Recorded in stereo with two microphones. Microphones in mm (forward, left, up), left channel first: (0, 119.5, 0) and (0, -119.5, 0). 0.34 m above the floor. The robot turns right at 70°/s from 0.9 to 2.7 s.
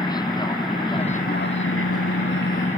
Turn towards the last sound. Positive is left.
turn(degrees=145)